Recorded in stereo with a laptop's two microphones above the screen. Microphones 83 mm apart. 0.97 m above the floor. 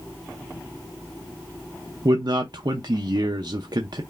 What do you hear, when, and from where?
2.0 s a man speaking: 60° right (ahead or behind), 0.6 m